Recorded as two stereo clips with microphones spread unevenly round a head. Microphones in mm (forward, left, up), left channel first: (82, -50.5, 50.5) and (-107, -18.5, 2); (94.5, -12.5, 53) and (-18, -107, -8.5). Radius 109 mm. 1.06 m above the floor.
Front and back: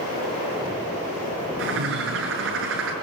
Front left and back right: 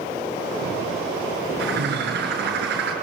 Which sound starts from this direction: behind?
A bird, at 1.6 s.